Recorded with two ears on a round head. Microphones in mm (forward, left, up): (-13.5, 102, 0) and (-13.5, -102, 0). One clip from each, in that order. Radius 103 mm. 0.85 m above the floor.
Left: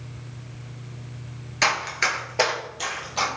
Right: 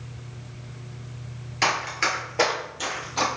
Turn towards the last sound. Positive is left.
turn(degrees=10)  # may be behind; listen again after turning